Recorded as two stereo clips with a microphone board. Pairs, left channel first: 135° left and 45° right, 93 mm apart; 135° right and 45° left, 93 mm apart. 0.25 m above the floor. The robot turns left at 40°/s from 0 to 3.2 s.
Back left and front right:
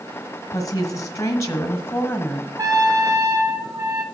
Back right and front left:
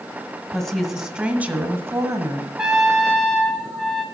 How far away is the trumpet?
About 1.6 m.